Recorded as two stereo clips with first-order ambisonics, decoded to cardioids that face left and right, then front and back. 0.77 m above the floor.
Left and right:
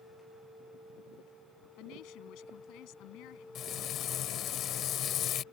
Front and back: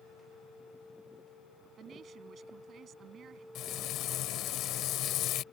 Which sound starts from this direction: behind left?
A woman speaking, at 1.8 s.